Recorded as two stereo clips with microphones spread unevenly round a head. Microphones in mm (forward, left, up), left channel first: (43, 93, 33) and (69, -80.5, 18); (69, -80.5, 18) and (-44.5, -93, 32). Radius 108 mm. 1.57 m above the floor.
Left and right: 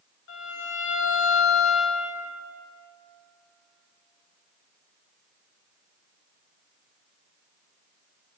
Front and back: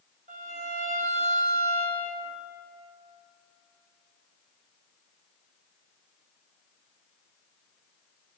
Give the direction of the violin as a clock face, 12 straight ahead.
7 o'clock.